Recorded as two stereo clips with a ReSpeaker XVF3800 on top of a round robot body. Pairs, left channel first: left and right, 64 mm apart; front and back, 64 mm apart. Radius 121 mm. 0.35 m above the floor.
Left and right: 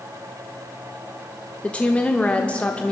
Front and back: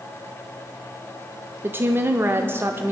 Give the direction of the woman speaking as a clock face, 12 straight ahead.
7 o'clock.